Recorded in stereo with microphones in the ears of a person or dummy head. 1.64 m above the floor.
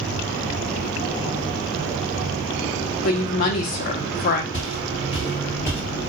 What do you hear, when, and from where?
3.0 s a woman speaking: 55° left (ahead or behind), 0.6 m
4.5 s footsteps: 40° left (ahead or behind), 2 m; by 5.8 s 15° left (ahead or behind), 1.8 m